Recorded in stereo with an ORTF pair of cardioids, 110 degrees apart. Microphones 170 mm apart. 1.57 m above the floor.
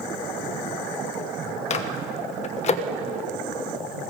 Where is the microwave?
45° left, 1.1 m.